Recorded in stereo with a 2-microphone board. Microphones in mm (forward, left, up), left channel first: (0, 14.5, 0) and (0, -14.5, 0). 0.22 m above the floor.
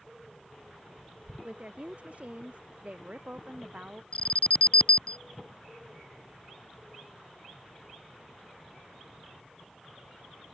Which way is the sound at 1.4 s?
45° right (ahead or behind).